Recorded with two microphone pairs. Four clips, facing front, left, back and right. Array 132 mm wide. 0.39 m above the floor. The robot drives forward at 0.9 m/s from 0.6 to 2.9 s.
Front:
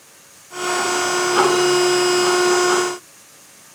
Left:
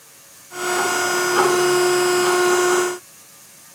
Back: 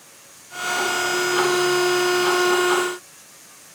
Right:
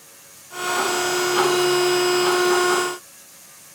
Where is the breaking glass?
No breaking glass in this recording.